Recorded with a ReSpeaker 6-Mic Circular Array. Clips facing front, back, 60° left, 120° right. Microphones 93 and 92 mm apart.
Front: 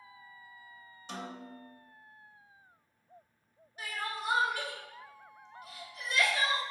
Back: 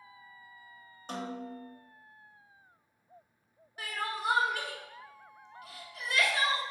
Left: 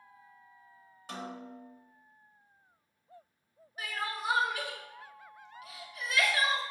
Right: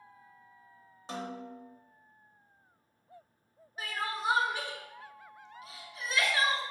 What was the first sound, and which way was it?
A snare drum, 175° right.